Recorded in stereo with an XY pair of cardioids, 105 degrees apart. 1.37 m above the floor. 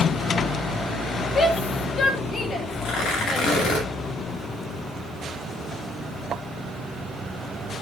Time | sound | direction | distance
1.4 | a shout | 50° left | 5 m
2.8 | tearing paper | 70° left | 8 m